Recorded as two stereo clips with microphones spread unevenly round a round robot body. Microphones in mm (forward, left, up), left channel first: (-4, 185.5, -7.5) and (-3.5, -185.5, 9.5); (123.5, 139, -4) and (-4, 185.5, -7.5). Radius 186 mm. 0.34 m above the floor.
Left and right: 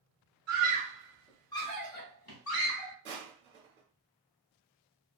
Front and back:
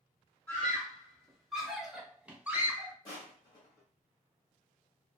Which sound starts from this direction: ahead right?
Crushing, at 3.0 s.